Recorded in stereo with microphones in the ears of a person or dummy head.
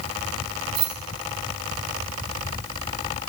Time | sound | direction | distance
0.8 | keys jangling | 40° right (ahead or behind) | 0.9 m